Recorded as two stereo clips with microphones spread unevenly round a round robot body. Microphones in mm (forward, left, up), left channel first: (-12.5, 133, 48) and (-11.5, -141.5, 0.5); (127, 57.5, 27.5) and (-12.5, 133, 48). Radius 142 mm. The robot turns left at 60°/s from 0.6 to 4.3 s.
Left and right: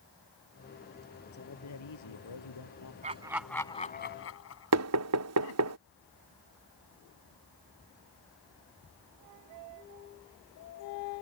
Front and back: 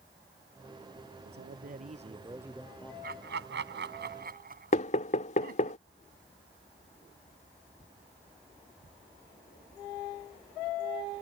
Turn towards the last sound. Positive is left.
turn(degrees=-75)